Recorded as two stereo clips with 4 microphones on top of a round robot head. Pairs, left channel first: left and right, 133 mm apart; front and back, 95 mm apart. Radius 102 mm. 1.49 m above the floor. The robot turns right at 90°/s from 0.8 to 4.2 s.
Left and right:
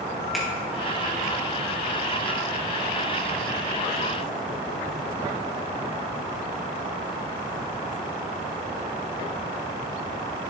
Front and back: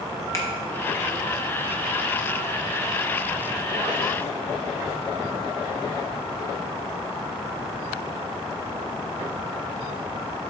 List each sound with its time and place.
0.3 s a finger snap: straight ahead, 0.5 m